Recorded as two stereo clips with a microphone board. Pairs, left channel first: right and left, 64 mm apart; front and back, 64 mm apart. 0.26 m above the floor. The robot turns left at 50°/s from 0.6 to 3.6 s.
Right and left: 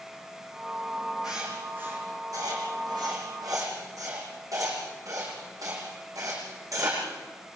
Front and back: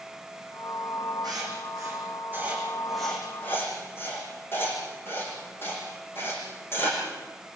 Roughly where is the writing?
Behind.